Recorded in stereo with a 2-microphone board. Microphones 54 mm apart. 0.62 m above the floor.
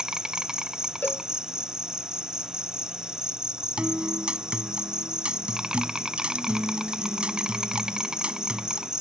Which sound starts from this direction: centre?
An insect, at 0.0 s.